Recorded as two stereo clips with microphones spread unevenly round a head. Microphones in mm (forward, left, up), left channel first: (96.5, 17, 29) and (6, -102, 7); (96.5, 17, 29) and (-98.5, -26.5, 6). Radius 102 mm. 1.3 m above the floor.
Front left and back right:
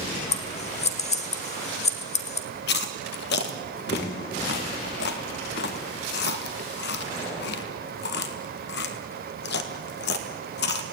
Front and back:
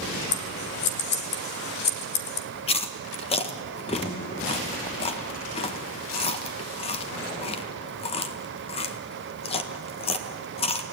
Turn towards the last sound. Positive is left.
turn(degrees=75)